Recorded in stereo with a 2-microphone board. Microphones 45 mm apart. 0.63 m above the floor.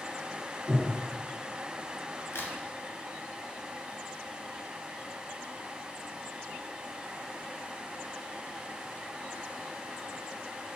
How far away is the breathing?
About 1.9 m.